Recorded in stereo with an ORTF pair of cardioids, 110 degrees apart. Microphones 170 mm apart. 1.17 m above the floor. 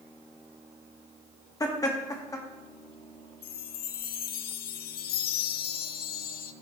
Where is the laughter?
20° left, 2.5 m.